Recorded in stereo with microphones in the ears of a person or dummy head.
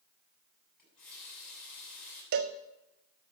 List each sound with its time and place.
0.8 s a running tap: 5° left (ahead or behind), 8 m
2.3 s a cowbell: 45° right (ahead or behind), 0.7 m